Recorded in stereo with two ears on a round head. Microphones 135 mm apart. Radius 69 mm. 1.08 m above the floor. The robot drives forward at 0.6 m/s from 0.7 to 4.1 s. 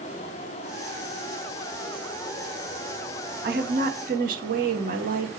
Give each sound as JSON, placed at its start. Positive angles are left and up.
{"t": 0.0, "sound": "running water", "side_deg": 50, "distance_m": 1.6}
{"t": 3.4, "sound": "a woman speaking", "side_deg": -70, "distance_m": 2.0}